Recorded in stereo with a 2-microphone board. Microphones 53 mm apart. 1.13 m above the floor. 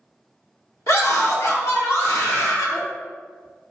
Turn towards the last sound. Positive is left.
turn(degrees=65)  # may be behind; listen again after turning